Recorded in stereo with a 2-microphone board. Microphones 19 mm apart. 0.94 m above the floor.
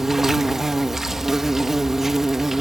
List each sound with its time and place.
0.0 s an insect: 15° right (ahead or behind)